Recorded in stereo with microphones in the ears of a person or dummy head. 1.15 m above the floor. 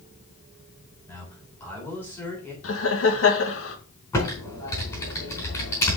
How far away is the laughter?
About 1.7 m.